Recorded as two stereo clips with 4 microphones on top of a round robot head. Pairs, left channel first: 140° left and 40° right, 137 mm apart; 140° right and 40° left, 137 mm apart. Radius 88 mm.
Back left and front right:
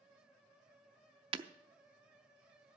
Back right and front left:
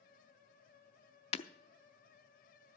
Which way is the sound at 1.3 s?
95° right.